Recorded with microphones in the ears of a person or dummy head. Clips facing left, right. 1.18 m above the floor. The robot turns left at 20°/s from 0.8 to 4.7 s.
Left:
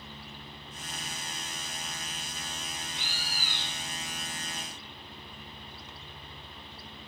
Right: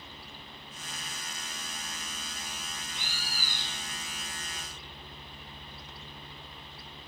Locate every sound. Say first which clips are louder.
2.9 s a bird: left 1 dB; 50° right (ahead or behind), 1.0 m; by 3.8 s 30° right (ahead or behind), 1.0 m